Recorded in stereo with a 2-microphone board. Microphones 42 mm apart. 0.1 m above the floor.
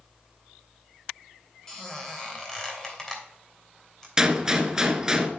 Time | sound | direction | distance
1.7 | a squeak | 10° left (ahead or behind) | 2.5 m
4.2 | a gunshot | 15° right (ahead or behind) | 1.0 m